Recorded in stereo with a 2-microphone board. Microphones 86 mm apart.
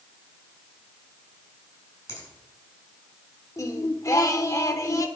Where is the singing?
35° left (ahead or behind), 0.8 m.